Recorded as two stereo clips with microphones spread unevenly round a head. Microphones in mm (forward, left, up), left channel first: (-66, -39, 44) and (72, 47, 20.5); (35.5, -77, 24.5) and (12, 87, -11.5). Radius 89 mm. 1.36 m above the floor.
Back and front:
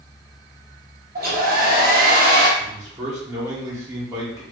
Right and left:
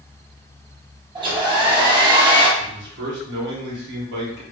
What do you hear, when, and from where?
1.1 s a hair dryer: 45° left, 1.0 m
2.6 s a man speaking: 105° left, 1.4 m